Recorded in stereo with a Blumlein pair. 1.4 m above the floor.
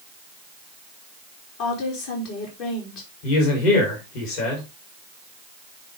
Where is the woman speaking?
45° left, 4 m.